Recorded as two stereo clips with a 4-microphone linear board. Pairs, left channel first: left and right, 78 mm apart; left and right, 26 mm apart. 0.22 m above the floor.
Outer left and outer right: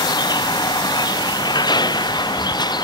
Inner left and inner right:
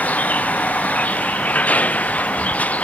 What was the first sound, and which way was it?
A vehicle, 65° left (ahead or behind).